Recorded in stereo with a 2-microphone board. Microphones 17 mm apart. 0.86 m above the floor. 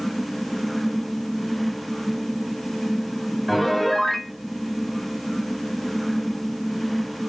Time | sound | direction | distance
3.5 | a piano | 10° left (ahead or behind) | 0.9 m